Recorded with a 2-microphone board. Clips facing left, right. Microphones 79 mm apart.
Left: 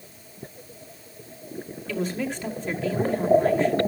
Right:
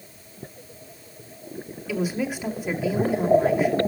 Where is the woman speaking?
10° right (ahead or behind), 2 m.